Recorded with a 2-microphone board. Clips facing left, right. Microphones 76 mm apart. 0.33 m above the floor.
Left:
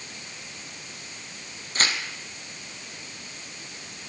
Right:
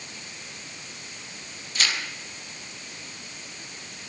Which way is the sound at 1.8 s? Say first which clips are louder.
Left 1 dB; 40° left (ahead or behind).